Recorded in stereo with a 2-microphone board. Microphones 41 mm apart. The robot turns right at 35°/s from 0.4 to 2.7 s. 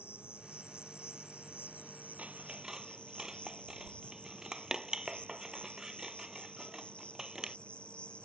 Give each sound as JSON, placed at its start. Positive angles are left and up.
{"t": 0.0, "sound": "an insect", "azimuth_deg": 70}
{"t": 2.2, "sound": "scissors", "side_deg": -35}